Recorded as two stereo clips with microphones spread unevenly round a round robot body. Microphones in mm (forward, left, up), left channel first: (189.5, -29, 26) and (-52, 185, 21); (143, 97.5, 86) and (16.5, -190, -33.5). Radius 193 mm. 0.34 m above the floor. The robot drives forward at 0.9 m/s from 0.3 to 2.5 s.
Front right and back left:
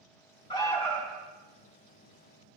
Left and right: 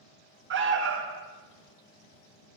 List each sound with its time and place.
0.5 s an alarm: 115° right, 1.9 m; by 1.3 s 135° right, 2 m